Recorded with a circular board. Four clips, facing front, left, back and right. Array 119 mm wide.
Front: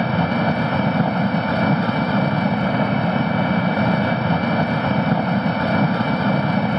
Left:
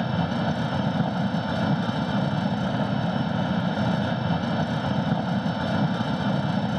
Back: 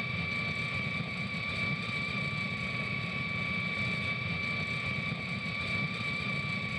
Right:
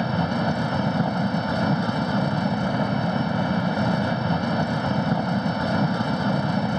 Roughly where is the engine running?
Ahead.